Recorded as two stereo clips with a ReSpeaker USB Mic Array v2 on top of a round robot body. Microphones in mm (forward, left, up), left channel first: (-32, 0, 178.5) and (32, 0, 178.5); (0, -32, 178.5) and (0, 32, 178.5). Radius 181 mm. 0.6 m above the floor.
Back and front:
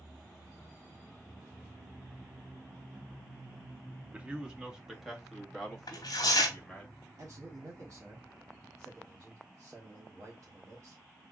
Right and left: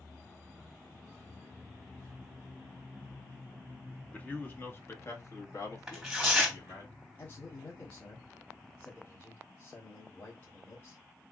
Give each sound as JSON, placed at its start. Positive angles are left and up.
{"t": 4.1, "sound": "a man speaking", "azimuth_deg": -45, "distance_m": 1.2}
{"t": 5.9, "sound": "tearing paper", "azimuth_deg": 175, "distance_m": 0.9}
{"t": 7.2, "sound": "a man speaking", "azimuth_deg": -45, "distance_m": 1.7}